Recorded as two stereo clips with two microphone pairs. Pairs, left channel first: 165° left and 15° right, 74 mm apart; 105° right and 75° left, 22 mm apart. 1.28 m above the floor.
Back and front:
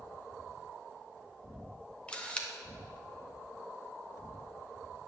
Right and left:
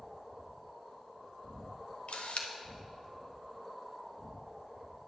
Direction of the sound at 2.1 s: 120° right.